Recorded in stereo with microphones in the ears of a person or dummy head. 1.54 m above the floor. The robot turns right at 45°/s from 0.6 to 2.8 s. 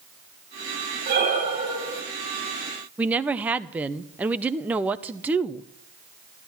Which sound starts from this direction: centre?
A woman speaking, at 3.0 s.